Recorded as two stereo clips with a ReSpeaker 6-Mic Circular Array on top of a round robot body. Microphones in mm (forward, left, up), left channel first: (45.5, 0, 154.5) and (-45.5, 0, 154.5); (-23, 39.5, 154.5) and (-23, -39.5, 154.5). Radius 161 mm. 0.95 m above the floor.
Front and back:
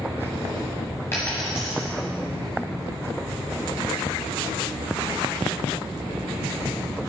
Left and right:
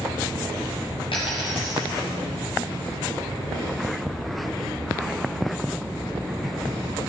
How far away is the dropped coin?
About 0.9 m.